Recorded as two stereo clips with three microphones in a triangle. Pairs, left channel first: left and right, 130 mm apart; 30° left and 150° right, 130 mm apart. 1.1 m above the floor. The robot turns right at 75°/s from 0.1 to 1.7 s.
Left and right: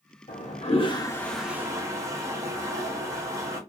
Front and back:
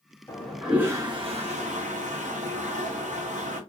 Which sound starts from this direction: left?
A toilet flushing, at 0.3 s.